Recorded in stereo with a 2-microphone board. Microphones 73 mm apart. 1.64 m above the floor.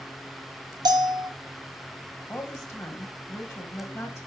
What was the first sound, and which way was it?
A bell, 70° right (ahead or behind).